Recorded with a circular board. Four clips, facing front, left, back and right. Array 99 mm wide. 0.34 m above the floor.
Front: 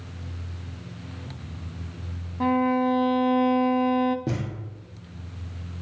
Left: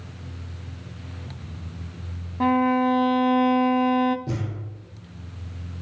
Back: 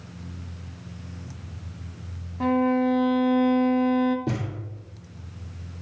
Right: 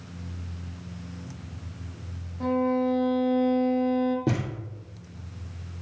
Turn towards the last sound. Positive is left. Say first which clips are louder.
# right 3 dB, back 1 dB
turn(degrees=-70)